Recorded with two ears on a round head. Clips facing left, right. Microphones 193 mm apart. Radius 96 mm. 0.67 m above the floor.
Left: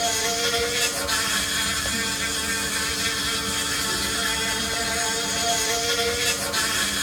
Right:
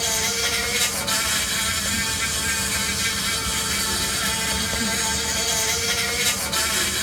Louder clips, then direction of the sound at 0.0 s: Left 3 dB; 75° right (ahead or behind).